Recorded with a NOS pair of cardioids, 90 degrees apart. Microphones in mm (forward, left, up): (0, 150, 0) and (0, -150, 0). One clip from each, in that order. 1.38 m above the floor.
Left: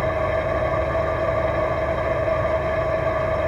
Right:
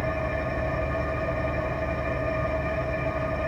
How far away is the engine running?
About 2.5 m.